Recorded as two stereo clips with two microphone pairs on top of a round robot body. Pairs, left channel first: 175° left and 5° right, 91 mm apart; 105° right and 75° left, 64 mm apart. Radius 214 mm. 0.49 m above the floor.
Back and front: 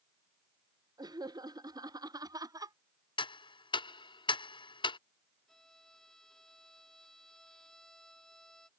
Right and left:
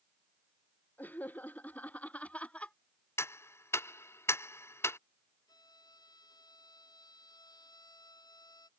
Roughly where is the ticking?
Behind right.